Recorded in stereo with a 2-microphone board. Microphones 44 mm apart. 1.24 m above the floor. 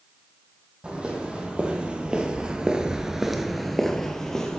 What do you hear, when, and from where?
0.8 s footsteps: 25° right (ahead or behind), 3 m; by 4.6 s 15° left (ahead or behind), 2 m